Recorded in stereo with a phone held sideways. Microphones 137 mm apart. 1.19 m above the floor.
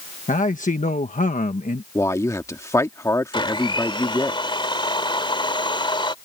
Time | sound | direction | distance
0.3 | a man speaking | 80° left | ?
1.9 | a man speaking | 25° left (ahead or behind) | ?
3.3 | a blender | 40° left (ahead or behind) | ?